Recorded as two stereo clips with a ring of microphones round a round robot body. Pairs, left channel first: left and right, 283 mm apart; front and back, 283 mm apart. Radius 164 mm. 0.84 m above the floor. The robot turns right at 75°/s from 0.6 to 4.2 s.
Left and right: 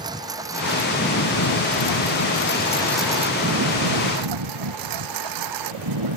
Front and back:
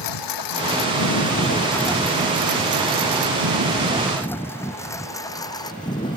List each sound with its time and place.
0.0 s a lawn mower: 10° right; by 6.2 s 75° right